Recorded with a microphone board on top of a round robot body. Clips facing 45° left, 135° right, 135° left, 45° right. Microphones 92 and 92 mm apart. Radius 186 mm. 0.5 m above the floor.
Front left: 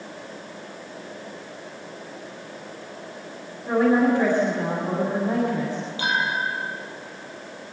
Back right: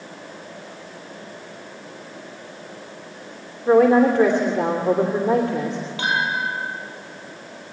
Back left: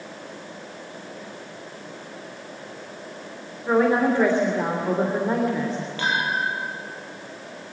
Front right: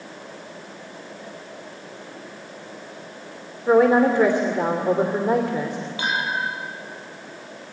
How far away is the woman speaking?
About 3 m.